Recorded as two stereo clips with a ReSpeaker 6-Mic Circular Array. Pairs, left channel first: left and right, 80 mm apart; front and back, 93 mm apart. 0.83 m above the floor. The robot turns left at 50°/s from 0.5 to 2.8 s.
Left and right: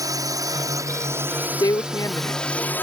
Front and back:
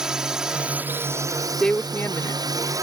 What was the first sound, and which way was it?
A drone, 100° right.